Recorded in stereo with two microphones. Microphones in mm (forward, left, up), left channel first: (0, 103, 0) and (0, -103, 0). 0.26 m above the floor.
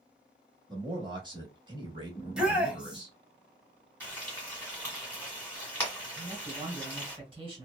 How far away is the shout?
About 1.1 m.